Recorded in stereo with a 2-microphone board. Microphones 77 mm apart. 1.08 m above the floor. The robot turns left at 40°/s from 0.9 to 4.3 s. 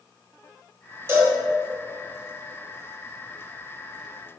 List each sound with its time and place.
1.1 s a cowbell: 35° right (ahead or behind), 1.5 m; by 1.4 s 25° right (ahead or behind), 1.5 m